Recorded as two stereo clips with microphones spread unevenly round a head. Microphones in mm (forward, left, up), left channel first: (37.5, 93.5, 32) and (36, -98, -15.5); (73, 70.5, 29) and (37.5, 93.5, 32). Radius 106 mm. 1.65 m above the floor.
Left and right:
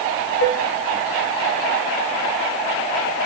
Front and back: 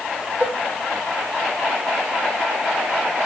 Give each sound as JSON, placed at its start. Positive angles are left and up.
{"t": 0.4, "sound": "dishes clattering", "azimuth_deg": 75, "distance_m": 8.5}